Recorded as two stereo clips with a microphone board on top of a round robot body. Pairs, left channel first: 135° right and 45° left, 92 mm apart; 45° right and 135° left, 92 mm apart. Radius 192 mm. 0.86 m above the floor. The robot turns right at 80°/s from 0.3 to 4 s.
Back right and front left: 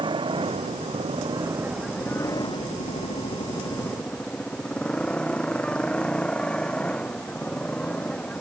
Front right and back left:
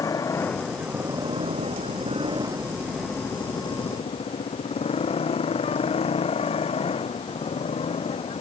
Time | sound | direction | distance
0.0 | a motorcycle | 10° left | ?